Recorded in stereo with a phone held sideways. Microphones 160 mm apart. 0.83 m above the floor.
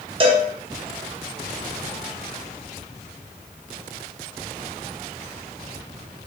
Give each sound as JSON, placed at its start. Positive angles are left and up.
{"t": 0.2, "sound": "a cowbell", "side_deg": -30, "distance_m": 0.5}